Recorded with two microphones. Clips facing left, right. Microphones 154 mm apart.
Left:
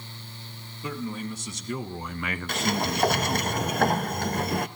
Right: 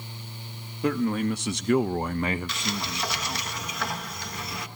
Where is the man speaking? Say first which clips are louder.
Right 8 dB; 70° right (ahead or behind), 1.7 m; by 3.5 s 40° left (ahead or behind), 1.3 m.